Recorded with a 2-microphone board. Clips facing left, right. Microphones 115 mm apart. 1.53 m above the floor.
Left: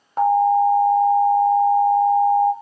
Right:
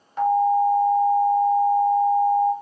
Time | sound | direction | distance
0.2 | an alarm | 40° left (ahead or behind) | 0.8 m